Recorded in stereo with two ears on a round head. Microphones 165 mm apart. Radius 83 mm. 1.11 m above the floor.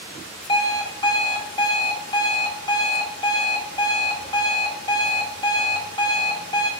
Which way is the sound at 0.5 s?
25° left (ahead or behind).